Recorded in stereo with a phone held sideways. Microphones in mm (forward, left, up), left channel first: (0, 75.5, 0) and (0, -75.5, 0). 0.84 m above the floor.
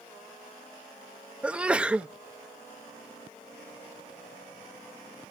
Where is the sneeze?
10° right (ahead or behind), 0.6 m.